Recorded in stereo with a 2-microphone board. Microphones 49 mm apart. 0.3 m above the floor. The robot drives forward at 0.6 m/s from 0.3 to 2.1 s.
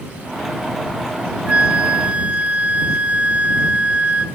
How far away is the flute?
About 0.8 m.